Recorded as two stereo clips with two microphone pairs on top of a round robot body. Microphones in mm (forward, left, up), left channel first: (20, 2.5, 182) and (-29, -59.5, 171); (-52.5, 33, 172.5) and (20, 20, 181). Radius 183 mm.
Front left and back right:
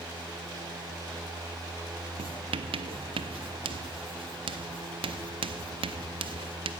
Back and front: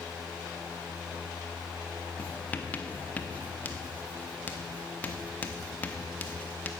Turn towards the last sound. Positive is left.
turn(degrees=-120)